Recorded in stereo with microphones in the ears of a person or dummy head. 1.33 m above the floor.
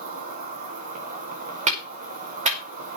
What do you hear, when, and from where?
0.0 s an insect: 45° right (ahead or behind), 3.5 m
1.7 s a clap: 40° right (ahead or behind), 5 m